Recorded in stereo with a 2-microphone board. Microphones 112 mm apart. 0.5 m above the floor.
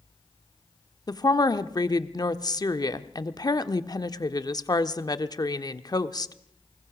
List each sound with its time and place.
1.1 s a woman speaking: 35° left (ahead or behind), 0.9 m